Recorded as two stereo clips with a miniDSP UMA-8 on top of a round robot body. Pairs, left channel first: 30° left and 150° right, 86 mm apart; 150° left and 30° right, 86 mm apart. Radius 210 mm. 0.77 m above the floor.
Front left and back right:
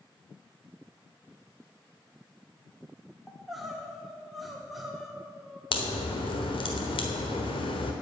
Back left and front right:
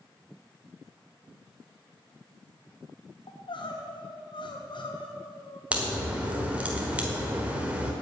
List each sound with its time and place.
3.3 s crying: 120° left, 1.8 m
5.7 s a crack: 45° left, 1.3 m